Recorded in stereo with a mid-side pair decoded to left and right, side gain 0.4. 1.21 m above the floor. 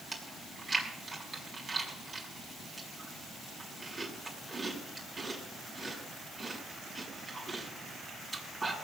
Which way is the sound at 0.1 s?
35° right.